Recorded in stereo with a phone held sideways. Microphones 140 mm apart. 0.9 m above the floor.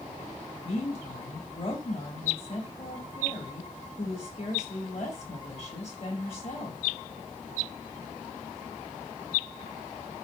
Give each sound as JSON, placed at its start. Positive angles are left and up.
{"t": 0.6, "sound": "a woman speaking", "side_deg": 45, "distance_m": 3.5}